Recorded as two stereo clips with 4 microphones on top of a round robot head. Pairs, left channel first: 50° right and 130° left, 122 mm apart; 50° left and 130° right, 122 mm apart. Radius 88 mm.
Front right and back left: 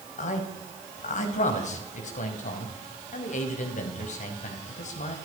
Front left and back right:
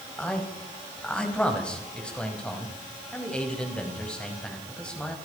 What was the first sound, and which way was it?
A man speaking, 30° right.